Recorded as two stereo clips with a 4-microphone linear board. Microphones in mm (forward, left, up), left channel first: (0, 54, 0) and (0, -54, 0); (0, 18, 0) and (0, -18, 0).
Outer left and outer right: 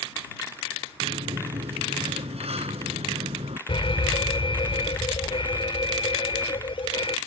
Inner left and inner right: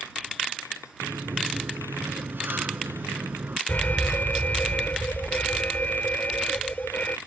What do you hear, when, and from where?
1.0 s a sliding door: 75° right (ahead or behind)
3.7 s an alarm: 60° left (ahead or behind)